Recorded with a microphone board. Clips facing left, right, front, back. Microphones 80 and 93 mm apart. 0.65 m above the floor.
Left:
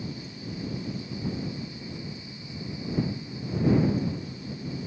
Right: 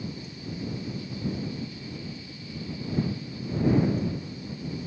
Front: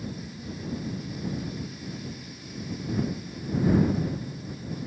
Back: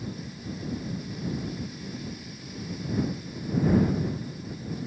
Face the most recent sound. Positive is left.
No sound to turn to.